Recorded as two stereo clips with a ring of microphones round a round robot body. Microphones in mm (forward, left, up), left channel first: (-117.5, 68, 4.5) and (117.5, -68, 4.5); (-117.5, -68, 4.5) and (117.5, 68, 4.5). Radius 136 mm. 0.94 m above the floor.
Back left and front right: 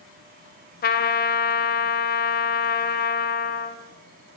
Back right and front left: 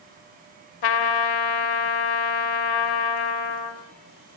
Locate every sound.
0.8 s a trumpet: 150° right, 2.5 m